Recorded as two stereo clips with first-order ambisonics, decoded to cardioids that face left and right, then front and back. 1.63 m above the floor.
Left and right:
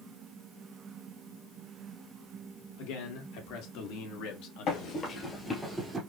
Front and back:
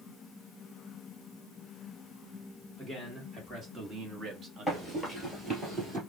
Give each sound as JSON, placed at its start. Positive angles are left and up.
{"t": 2.8, "sound": "a man speaking", "azimuth_deg": 100, "distance_m": 1.8}
{"t": 4.7, "sound": "running footsteps", "azimuth_deg": 85, "distance_m": 2.0}